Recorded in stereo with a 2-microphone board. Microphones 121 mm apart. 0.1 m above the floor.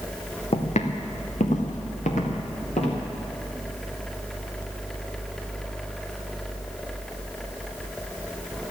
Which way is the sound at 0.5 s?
55° left (ahead or behind).